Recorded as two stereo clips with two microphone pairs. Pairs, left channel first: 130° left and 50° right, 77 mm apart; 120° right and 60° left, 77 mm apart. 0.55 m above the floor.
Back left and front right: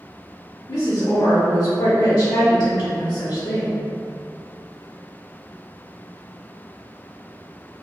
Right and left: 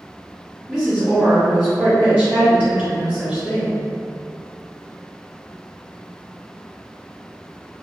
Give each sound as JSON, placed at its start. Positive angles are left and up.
{"t": 0.7, "sound": "a woman speaking", "azimuth_deg": 140, "distance_m": 1.7}